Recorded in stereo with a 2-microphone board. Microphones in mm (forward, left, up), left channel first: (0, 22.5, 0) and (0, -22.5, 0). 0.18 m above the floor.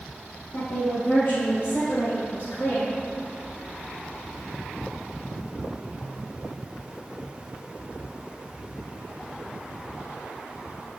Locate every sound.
0.5 s a woman speaking: 65° left (ahead or behind), 2.5 m; by 2.9 s 70° left (ahead or behind), 5 m